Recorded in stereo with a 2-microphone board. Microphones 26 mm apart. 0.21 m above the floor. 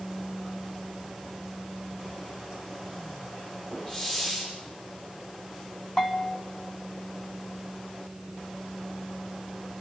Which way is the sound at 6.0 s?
20° left (ahead or behind).